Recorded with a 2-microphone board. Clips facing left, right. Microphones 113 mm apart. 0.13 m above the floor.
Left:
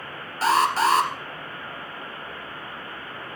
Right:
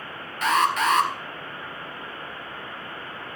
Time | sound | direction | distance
0.4 | an alarm | 35° left (ahead or behind) | 2.5 m